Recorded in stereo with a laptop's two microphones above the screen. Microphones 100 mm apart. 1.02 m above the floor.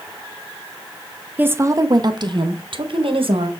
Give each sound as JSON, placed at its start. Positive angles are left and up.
{"t": 1.4, "sound": "a woman speaking", "side_deg": -15, "distance_m": 0.5}